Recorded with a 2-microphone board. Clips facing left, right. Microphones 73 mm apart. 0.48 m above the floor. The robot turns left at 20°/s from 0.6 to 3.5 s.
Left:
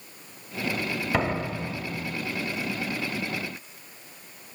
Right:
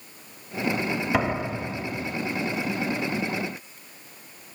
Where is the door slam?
5° right (ahead or behind), 0.8 m; by 2.2 s 20° right (ahead or behind), 0.8 m.